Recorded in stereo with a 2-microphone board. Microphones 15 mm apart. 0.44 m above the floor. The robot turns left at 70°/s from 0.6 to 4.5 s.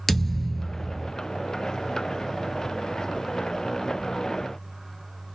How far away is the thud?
About 0.7 m.